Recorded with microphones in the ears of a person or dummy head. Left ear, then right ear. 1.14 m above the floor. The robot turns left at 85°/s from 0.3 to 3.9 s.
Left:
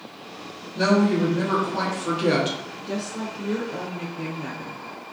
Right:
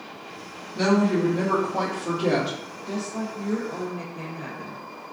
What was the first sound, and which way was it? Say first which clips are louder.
A woman speaking: left 1 dB; 25° right (ahead or behind).